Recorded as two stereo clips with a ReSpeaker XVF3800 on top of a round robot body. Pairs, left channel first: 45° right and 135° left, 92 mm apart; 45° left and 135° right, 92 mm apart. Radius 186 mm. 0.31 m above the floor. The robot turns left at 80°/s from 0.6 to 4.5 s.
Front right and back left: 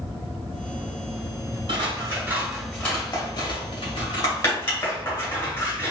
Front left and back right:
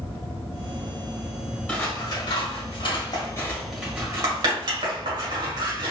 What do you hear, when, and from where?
1.7 s scissors: 120° left, 2 m; by 5.9 s 105° right, 2 m